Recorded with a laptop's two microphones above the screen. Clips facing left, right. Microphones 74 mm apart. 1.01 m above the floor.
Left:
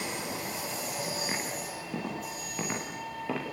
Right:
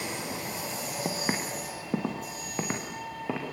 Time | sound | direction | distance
1.1 | footsteps | 55° right (ahead or behind) | 4 m